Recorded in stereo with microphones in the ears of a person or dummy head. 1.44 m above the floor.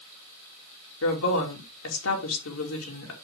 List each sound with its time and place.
1.0 s a woman speaking: 80° left, 3 m